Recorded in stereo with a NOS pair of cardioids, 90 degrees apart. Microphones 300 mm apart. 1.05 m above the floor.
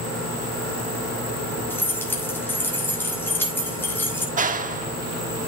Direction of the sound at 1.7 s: 5° left.